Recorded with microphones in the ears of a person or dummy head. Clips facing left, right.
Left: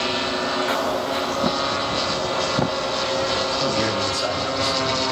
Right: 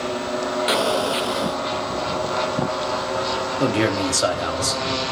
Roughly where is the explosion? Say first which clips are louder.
Right 2 dB; right.